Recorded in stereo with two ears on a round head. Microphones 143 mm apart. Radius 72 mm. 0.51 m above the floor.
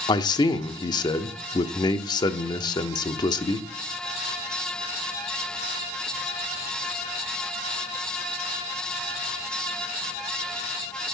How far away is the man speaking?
About 0.7 m.